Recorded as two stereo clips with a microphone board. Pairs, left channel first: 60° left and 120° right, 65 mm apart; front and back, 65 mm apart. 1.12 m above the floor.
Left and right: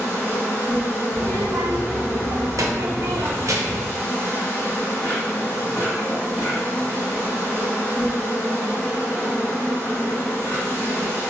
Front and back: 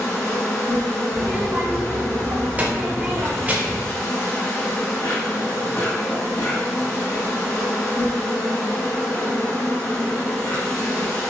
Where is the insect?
15° left, 1.3 m.